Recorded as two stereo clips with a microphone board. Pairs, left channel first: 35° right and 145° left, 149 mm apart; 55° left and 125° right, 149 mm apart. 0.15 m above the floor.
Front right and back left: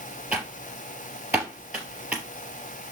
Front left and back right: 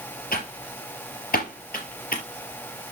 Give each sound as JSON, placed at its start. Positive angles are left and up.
{"t": 0.3, "sound": "typing on a keyboard", "azimuth_deg": 70, "distance_m": 3.5}